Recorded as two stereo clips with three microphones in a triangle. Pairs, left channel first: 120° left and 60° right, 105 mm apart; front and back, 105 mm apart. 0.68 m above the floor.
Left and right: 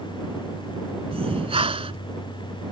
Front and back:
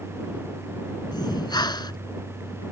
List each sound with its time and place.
1.1 s breathing: 45° right